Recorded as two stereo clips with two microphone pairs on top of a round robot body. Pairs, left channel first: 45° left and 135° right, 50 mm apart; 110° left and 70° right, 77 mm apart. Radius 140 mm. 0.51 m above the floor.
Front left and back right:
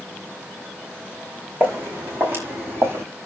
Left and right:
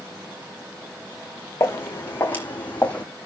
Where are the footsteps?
170° left, 2.5 m; by 3.0 s 175° right, 1.7 m.